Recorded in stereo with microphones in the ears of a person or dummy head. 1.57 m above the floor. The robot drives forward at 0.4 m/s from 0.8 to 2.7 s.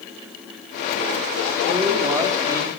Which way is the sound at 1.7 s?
15° right (ahead or behind).